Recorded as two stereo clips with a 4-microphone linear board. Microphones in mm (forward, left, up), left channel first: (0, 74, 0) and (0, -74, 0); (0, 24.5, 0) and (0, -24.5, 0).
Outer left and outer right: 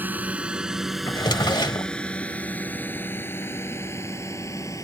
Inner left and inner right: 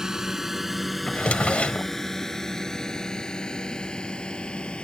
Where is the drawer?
30° left (ahead or behind).